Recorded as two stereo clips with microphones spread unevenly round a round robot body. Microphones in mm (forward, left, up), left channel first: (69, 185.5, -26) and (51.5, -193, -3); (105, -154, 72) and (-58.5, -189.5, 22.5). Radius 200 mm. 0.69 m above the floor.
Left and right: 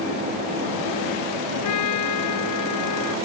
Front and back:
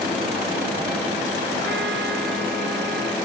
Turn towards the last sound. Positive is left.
turn(degrees=140)